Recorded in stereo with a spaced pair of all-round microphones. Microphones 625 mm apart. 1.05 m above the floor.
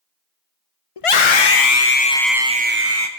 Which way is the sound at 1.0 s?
60° left (ahead or behind).